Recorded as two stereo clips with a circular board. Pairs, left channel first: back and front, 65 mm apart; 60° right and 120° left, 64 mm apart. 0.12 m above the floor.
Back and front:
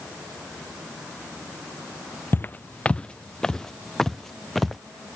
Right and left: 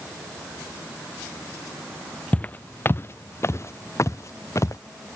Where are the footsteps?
125° right; by 4.8 s 95° right.